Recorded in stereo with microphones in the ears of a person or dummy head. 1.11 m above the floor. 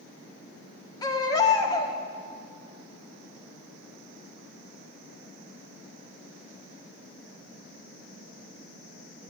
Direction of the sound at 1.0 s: 20° left (ahead or behind).